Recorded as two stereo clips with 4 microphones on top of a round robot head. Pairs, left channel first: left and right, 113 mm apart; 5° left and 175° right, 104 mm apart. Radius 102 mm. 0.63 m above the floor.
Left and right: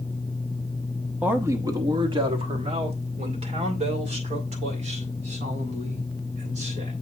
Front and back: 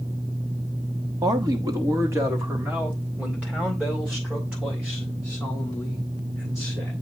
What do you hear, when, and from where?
1.2 s a man speaking: 160° right, 1.1 m; by 6.9 s 90° right, 5 m